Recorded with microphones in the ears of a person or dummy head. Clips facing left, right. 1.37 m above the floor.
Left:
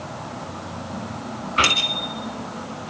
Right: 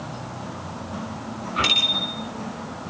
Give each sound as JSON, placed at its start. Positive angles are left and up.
{"t": 1.6, "sound": "a bicycle bell", "side_deg": 35, "distance_m": 6.5}